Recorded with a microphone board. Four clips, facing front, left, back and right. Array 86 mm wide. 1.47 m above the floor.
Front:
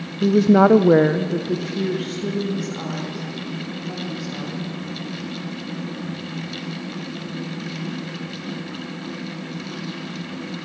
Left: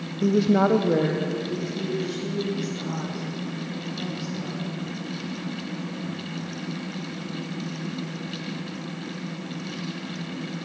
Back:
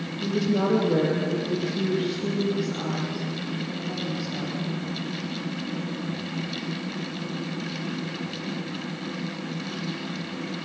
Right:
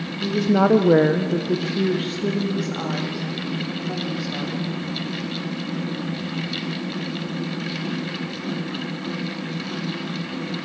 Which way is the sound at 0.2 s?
25° left.